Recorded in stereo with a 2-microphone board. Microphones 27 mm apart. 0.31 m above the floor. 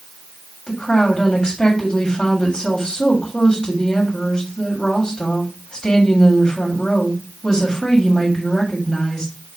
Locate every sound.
0.7 s a woman speaking: 20° left (ahead or behind), 1.8 m